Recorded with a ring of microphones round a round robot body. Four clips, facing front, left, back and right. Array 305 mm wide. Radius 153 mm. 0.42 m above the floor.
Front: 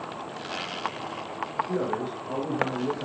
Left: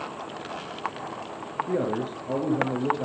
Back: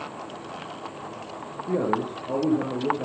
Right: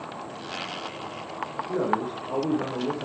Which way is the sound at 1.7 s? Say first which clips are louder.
Right 1 dB, back 9 dB; 140° left.